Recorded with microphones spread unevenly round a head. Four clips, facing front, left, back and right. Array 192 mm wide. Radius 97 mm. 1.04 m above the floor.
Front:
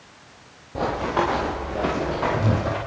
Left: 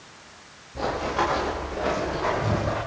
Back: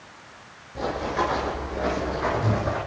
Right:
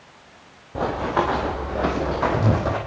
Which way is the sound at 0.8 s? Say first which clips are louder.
Right 3 dB, front 3 dB; 50° right.